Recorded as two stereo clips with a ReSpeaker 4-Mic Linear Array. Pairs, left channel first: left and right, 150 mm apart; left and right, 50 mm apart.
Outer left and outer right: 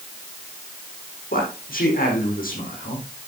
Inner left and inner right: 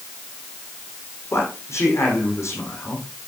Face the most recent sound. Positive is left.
turn(degrees=70)  # may be behind; listen again after turning